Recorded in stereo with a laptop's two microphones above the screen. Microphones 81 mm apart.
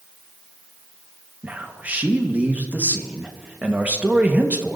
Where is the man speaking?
20° right (ahead or behind), 1.3 m.